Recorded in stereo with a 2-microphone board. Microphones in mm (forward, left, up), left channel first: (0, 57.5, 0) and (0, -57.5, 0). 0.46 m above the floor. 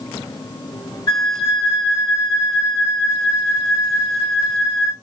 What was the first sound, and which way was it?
A flute, 40° left (ahead or behind).